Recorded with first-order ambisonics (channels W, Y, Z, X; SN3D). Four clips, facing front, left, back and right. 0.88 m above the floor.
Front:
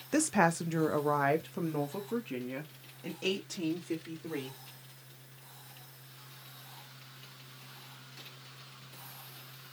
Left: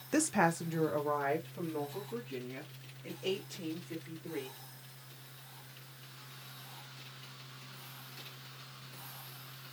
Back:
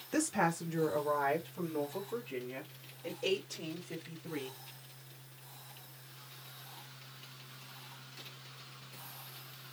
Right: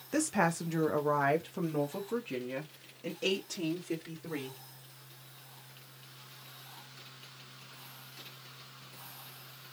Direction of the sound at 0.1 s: 30° left.